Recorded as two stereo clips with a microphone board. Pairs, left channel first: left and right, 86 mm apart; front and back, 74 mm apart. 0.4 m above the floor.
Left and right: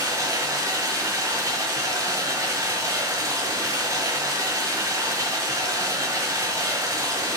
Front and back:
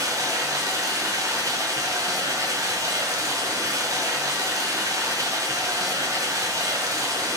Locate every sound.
0.0 s running water: 140° right, 2.0 m